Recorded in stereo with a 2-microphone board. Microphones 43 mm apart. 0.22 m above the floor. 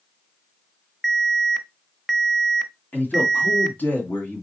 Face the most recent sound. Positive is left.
turn(degrees=45)  # may be behind; listen again after turning